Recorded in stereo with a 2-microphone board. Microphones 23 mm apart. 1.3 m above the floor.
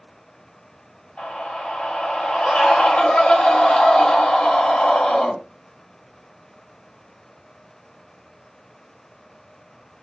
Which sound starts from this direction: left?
A scream, at 1.2 s.